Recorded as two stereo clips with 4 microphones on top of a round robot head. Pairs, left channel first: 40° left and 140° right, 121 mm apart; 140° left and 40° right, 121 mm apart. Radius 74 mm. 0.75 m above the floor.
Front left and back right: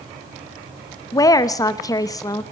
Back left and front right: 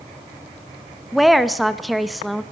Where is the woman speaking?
50° left, 1.0 m.